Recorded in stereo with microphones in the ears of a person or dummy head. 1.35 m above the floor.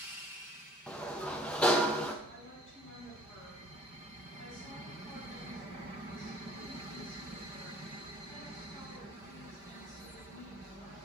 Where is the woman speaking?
45° left (ahead or behind), 3.5 m.